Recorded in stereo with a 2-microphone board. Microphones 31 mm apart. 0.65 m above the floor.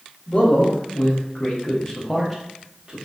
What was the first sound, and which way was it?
A man speaking, 60° left (ahead or behind).